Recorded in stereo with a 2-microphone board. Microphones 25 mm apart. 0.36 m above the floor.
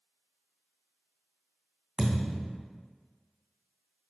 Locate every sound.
2.0 s a thud: 25° right (ahead or behind), 2 m